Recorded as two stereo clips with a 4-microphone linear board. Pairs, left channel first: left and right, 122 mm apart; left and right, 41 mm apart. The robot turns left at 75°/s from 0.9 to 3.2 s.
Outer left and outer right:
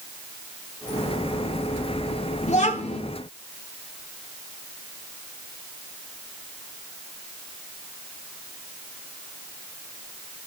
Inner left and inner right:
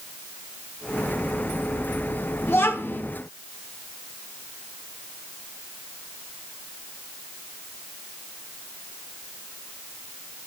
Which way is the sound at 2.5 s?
105° left.